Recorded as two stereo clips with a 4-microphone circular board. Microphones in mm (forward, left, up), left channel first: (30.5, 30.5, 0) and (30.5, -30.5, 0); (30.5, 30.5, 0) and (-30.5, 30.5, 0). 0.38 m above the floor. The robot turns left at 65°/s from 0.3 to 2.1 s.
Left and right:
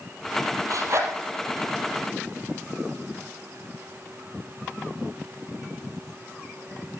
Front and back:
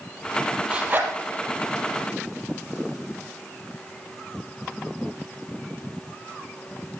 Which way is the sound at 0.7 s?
110° right.